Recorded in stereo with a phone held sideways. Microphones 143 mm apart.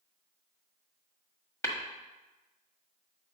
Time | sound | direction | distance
1.6 | tapping | 20° left (ahead or behind) | 1.5 m